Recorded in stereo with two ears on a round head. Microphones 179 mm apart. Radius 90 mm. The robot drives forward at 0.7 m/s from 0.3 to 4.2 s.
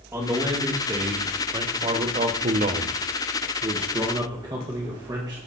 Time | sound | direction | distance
0.1 | a man speaking | 15° right (ahead or behind) | 1.9 m